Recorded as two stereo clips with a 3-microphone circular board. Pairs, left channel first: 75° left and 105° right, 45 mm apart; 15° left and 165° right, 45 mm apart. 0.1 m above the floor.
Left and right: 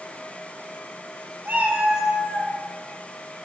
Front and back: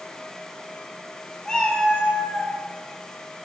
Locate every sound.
1.4 s a cat meowing: 60° right, 1.4 m; by 2.5 s 50° left, 0.8 m